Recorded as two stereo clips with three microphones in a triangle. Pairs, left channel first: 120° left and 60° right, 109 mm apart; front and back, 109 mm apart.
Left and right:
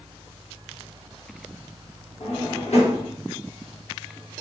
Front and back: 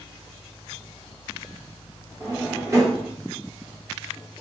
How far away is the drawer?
About 0.9 m.